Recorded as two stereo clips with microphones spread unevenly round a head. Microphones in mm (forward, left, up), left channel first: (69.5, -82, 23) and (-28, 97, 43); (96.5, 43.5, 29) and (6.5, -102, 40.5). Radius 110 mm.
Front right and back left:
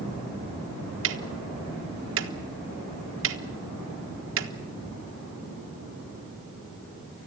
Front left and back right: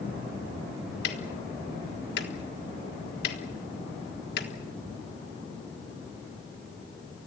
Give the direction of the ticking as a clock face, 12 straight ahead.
9 o'clock.